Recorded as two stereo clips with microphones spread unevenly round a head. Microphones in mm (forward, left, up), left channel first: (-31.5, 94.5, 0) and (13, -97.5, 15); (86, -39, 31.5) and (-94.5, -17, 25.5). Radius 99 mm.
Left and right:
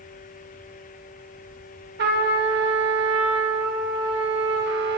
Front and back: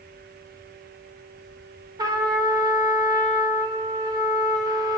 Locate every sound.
2.0 s a trumpet: 115° right, 0.8 m